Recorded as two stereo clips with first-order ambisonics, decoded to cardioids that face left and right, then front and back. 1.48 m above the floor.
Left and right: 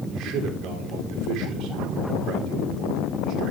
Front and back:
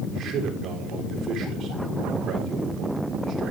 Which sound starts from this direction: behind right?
A man speaking, at 0.1 s.